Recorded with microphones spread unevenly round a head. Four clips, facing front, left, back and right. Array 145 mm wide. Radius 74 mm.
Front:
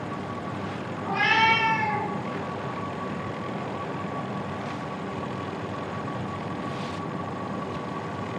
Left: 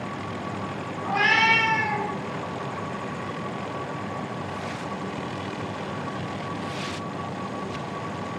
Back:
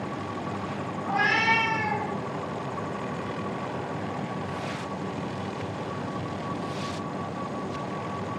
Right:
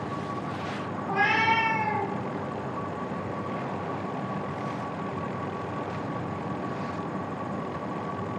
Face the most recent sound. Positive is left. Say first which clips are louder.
# left 2 dB, front 2 dB
turn(degrees=85)